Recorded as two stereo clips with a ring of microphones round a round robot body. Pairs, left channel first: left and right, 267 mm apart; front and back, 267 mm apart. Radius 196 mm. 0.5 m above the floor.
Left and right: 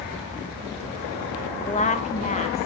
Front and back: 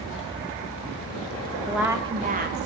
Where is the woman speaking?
85° left, 0.9 m; by 2.7 s 150° left, 1.1 m.